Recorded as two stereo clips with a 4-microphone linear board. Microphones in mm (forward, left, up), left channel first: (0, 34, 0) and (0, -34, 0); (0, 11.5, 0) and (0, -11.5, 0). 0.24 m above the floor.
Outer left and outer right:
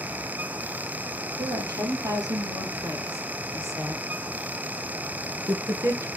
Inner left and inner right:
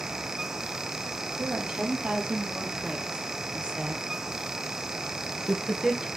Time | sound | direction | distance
1.4 | a woman speaking | 60° right (ahead or behind) | 5.5 m